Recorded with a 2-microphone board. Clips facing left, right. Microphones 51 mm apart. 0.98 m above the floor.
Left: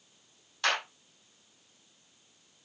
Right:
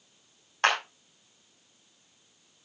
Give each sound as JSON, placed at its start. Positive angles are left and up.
{"t": 0.6, "sound": "a clap", "side_deg": -45, "distance_m": 6.0}